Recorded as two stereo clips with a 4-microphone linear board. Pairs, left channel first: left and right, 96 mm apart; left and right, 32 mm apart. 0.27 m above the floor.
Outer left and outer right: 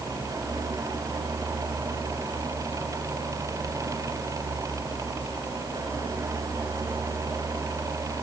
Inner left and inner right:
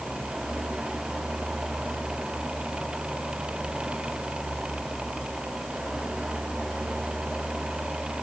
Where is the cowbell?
I don't hear a cowbell.